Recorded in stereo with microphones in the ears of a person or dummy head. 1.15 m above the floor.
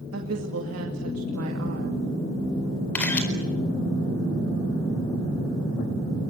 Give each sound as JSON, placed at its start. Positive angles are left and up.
{"t": 0.1, "sound": "a woman speaking", "side_deg": -75, "distance_m": 2.5}
{"t": 3.0, "sound": "a camera shutter", "side_deg": 10, "distance_m": 4.5}